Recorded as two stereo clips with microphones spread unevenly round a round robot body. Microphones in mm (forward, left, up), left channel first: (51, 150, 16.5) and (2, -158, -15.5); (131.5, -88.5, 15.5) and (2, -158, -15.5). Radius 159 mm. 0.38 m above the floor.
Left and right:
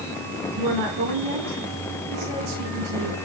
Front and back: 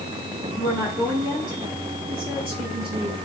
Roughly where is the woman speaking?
Right.